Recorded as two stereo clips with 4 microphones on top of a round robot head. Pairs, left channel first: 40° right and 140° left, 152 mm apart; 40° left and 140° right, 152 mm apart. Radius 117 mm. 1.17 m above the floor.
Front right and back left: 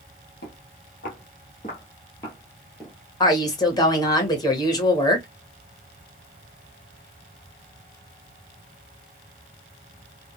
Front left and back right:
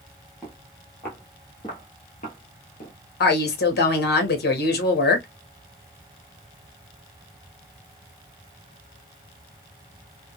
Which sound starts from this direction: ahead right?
Footsteps, at 0.4 s.